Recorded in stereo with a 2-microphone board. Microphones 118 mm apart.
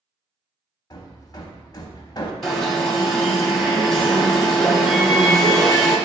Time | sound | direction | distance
0.9 | hammering | 35° left (ahead or behind) | 0.5 m
2.4 | an alarm | centre (ahead or behind) | 1.0 m